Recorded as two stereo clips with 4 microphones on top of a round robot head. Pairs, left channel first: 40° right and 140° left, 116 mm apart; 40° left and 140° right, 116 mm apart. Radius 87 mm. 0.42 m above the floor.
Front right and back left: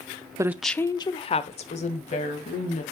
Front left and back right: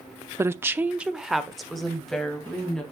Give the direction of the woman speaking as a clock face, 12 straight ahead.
6 o'clock.